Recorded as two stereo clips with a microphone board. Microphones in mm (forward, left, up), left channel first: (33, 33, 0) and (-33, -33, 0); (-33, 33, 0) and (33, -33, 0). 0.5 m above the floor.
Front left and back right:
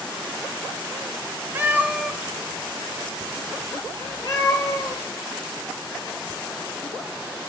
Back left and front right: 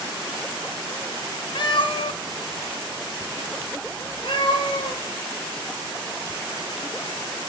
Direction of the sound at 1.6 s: 160° left.